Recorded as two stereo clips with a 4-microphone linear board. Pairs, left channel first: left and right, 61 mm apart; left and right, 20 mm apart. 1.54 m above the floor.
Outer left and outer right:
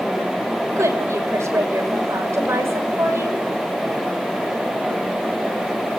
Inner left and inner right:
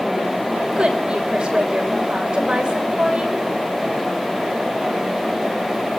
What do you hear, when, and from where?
0.8 s a woman speaking: 55° right (ahead or behind), 6.5 m; by 3.5 s 45° right (ahead or behind), 7.5 m